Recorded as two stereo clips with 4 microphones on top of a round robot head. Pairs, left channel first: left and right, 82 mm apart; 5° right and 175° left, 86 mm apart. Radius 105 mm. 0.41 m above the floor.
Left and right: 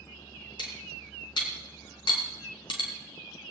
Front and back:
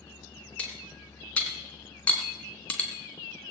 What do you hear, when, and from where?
0.6 s cutlery clinking: 65° left, 3 m